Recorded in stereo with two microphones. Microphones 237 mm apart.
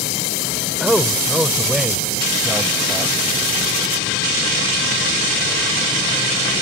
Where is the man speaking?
Centre (ahead or behind).